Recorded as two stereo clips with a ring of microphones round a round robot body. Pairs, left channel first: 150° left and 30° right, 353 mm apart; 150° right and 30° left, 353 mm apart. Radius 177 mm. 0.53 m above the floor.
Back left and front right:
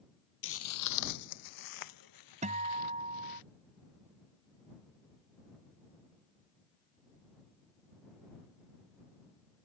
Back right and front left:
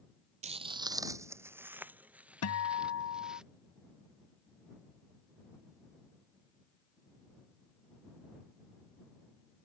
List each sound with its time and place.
0.4 s footsteps: 100° left; by 3.4 s 120° left
2.4 s a guitar: 100° right